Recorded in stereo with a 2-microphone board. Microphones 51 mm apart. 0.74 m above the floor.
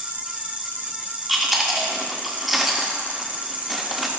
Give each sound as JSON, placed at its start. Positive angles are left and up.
{"t": 0.0, "sound": "an insect", "side_deg": -30, "distance_m": 1.1}
{"t": 1.3, "sound": "chewing", "side_deg": 0, "distance_m": 1.6}